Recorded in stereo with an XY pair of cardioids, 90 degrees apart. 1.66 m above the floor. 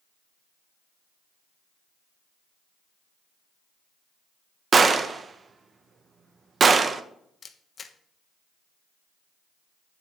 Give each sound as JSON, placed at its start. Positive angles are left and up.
{"t": 4.7, "sound": "a gunshot", "azimuth_deg": -45, "distance_m": 0.7}
{"t": 7.4, "sound": "a camera shutter", "azimuth_deg": 45, "distance_m": 0.8}